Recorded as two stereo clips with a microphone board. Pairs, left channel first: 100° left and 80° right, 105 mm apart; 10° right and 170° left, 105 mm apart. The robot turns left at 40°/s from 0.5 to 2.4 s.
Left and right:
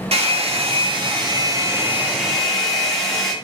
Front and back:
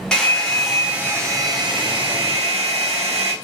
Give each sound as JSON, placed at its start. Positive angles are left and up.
{"t": 0.1, "sound": "a hair dryer", "azimuth_deg": -95, "distance_m": 0.7}